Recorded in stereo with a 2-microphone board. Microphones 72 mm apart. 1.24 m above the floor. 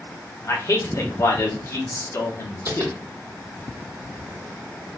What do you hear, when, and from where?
0.4 s a man speaking: 50° left (ahead or behind), 1.1 m
2.7 s tapping: 60° right (ahead or behind), 1.7 m